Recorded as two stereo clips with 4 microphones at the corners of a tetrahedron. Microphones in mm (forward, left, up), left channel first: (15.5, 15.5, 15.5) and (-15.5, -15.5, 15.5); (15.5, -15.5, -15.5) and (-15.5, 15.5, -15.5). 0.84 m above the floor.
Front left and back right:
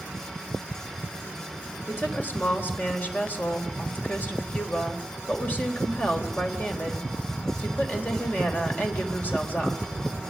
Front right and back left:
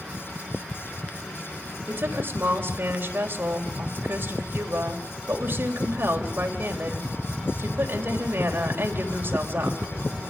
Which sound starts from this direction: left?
A woman speaking, at 1.9 s.